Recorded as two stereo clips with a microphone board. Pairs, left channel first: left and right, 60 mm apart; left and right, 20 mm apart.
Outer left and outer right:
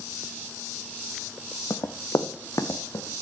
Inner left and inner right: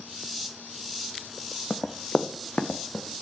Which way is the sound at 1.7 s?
70° left (ahead or behind).